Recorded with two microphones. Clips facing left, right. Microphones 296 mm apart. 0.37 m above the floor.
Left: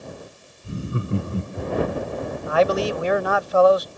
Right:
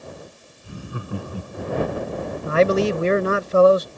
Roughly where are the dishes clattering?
I don't hear dishes clattering.